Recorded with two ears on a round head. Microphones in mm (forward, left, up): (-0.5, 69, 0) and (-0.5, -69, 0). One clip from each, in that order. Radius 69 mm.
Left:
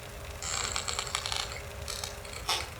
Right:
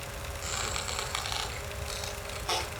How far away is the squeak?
About 5 m.